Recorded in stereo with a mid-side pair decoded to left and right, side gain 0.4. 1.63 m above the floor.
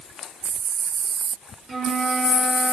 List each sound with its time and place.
1.7 s a flute: 45° right, 1.9 m